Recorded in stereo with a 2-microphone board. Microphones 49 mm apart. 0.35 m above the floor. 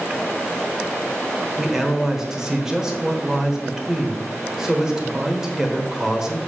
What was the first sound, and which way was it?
A man speaking, 10° right (ahead or behind).